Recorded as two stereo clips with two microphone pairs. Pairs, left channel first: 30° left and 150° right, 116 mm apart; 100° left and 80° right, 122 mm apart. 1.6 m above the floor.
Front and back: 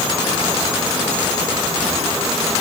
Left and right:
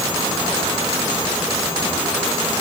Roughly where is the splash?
No splash in this recording.